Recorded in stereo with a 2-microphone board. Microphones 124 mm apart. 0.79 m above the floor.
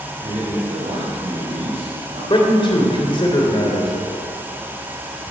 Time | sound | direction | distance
0.2 | a man speaking | 60° right (ahead or behind) | 4.5 m
2.3 | a man speaking | 45° left (ahead or behind) | 2.5 m